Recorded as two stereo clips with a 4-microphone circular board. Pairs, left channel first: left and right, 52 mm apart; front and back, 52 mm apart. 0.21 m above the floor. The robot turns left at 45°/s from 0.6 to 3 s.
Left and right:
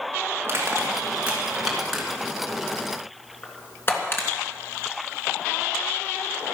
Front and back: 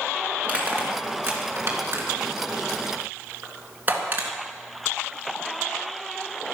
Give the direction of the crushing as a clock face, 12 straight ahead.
4 o'clock.